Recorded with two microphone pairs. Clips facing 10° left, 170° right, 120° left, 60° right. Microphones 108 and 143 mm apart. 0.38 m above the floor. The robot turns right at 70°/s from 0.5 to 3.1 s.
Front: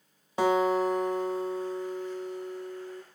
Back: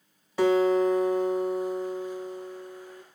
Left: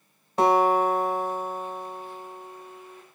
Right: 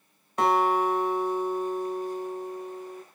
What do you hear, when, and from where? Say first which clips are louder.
0.4 s a guitar: back 3 dB, left 3 dB; 75° left, 1.4 m; by 3.0 s 110° right, 1.4 m